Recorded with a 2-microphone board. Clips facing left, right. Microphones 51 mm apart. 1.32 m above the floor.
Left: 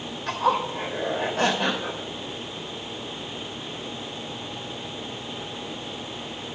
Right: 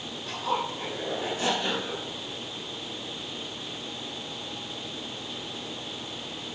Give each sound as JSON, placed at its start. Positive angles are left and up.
{"t": 0.3, "sound": "a zipper", "side_deg": 70, "distance_m": 3.0}